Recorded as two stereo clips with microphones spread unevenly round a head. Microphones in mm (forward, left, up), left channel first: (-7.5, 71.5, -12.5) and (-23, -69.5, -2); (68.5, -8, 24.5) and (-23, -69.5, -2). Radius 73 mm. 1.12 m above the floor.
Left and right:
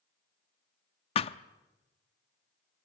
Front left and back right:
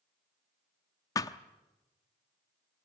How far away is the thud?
About 0.6 m.